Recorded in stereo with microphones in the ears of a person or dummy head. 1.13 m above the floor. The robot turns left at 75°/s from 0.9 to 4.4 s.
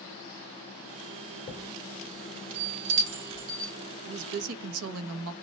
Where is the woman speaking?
55° right (ahead or behind), 1.1 m; by 5.3 s 80° right, 1.1 m.